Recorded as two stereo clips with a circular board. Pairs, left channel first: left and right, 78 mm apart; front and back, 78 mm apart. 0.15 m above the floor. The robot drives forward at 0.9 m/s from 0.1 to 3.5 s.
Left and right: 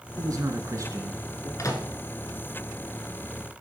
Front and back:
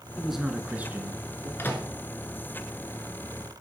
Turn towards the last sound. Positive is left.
turn(degrees=130)